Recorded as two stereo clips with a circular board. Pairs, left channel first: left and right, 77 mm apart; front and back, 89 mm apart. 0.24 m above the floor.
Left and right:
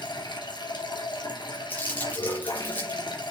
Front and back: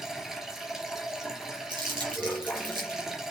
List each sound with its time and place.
0.0 s running water: 95° left, 2.5 m
1.7 s crumpling: 155° left, 4.5 m